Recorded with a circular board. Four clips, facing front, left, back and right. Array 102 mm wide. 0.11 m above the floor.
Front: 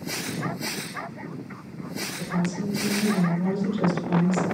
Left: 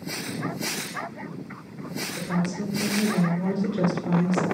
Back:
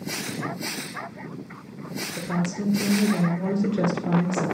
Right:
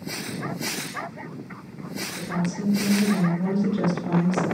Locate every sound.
2.2 s a woman speaking: straight behind, 1.9 m